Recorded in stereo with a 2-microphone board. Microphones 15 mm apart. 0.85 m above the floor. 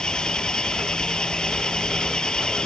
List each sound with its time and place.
0.0 s an engine running: 75° left (ahead or behind)